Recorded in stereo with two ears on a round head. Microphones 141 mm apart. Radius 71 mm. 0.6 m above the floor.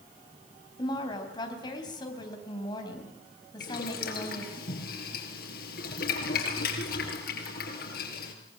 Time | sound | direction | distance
0.8 | a woman speaking | 25° left (ahead or behind) | 3.5 m
3.6 | boiling | 65° left (ahead or behind) | 4 m